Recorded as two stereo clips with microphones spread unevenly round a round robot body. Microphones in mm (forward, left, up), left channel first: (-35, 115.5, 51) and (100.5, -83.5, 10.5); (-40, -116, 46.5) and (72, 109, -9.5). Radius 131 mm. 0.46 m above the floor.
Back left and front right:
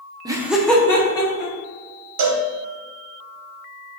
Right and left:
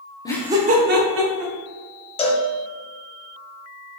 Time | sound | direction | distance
0.2 | laughter | 35° right | 0.8 m
2.2 | a cowbell | 45° right | 0.9 m